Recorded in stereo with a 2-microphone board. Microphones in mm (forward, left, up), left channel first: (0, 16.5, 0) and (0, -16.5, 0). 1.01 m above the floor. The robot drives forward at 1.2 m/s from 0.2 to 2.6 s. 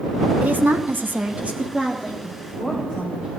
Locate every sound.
0.4 s a woman speaking: 55° right (ahead or behind), 1.0 m; by 2.1 s 25° right (ahead or behind), 1.7 m
2.2 s a woman speaking: 35° right (ahead or behind), 4 m